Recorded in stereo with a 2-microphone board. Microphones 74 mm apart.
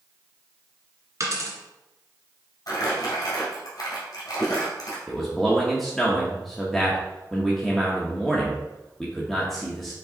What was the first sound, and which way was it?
A dropped coin, 45° right (ahead or behind).